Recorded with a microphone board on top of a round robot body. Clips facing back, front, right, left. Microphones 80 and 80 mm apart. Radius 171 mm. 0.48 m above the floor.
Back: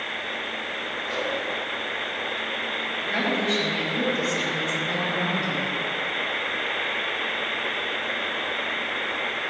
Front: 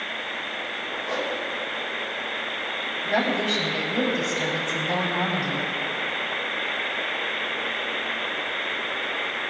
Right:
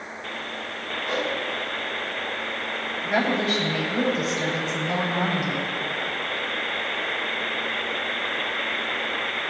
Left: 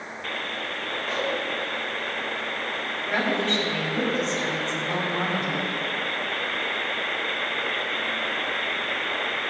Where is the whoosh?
10° right, 3.5 m.